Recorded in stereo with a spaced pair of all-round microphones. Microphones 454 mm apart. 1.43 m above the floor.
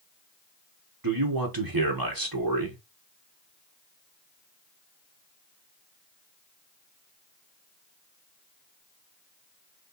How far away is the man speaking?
About 1.3 m.